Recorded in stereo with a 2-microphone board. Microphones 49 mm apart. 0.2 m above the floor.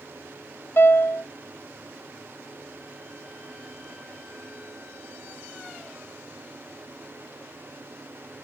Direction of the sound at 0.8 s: 50° left (ahead or behind).